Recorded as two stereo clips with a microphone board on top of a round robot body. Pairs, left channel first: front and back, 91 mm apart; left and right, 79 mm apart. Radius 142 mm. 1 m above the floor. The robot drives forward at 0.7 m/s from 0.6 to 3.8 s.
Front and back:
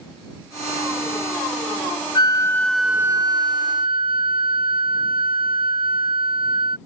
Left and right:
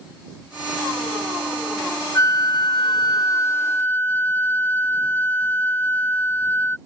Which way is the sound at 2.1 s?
40° left.